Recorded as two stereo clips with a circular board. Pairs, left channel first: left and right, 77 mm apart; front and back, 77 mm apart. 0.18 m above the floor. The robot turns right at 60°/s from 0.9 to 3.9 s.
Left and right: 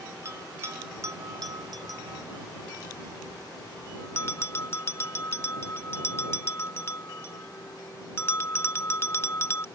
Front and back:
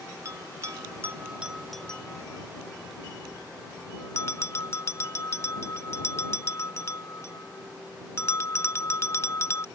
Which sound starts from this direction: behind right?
A bell, at 0.2 s.